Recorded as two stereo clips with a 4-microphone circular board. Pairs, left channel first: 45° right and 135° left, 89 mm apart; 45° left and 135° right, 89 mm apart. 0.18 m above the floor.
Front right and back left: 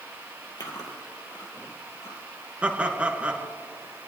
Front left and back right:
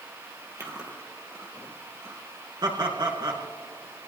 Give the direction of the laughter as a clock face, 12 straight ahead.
5 o'clock.